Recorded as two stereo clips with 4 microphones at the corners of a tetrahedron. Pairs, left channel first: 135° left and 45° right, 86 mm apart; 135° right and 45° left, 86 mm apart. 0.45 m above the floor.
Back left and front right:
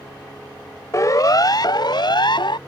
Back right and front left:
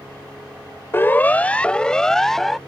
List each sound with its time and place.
0.9 s a siren: 170° left; by 2.6 s 135° left